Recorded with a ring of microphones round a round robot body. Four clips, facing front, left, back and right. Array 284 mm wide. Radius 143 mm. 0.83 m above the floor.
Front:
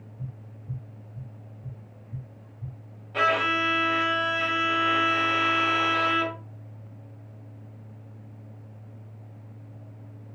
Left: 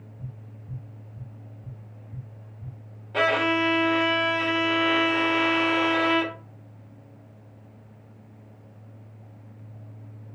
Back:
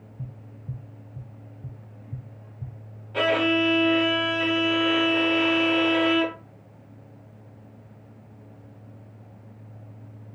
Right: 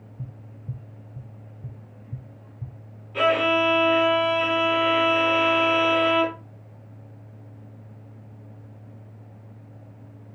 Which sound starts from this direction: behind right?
Tapping, at 0.2 s.